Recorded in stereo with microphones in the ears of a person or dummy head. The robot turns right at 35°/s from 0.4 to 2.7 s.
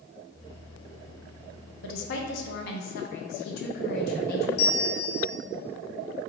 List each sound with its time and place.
1.8 s a woman speaking: 85° left, 0.9 m; by 4.5 s 115° left, 0.9 m
4.6 s a bell: 70° left (ahead or behind), 0.6 m